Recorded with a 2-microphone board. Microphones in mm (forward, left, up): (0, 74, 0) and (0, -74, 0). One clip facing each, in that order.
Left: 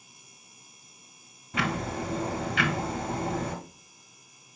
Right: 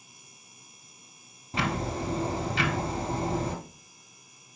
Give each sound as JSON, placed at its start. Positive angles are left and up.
{"t": 1.5, "sound": "ticking", "side_deg": -35, "distance_m": 0.8}